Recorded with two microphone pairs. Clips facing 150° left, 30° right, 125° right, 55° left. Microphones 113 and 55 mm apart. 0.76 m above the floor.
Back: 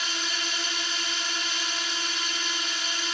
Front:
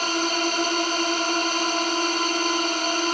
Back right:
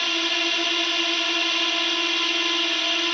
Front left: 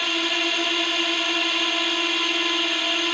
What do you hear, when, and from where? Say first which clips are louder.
0.0 s a drone: front 11 dB, front left 1 dB; 35° right